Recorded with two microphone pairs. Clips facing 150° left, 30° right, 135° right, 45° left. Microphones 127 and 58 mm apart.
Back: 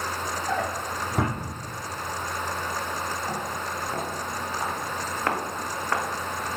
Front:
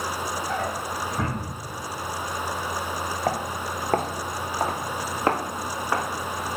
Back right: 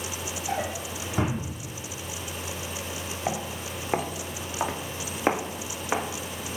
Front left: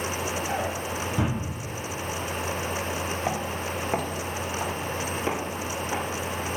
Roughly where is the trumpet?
I don't hear a trumpet.